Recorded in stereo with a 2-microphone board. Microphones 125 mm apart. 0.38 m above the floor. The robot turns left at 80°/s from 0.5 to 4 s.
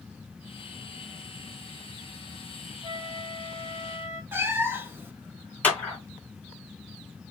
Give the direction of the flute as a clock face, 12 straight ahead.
2 o'clock.